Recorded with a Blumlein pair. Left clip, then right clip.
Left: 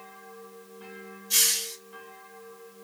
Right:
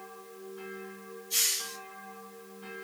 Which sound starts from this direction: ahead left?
A hiss, at 1.3 s.